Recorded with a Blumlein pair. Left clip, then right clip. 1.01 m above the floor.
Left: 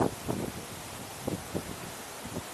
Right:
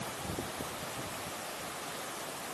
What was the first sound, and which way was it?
Only background noise.